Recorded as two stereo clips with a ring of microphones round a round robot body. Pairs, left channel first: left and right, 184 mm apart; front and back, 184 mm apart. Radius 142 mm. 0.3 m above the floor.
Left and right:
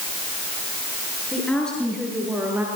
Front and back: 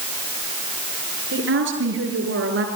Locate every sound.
1.3 s a woman speaking: 175° left, 7 m; by 2.7 s 170° right, 6.5 m